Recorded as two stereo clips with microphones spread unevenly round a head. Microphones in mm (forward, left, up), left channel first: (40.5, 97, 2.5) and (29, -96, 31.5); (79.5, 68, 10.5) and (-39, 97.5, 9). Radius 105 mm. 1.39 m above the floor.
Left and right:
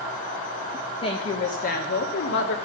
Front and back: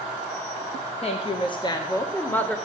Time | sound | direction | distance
1.0 | a woman speaking | 25° left | 1.5 m